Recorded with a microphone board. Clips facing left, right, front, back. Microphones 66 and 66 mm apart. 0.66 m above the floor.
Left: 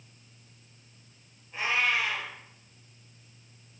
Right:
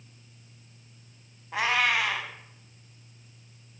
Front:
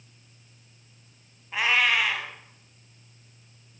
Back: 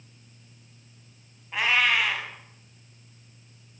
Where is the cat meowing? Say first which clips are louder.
Right 3 dB, even; 90° right, 2 m.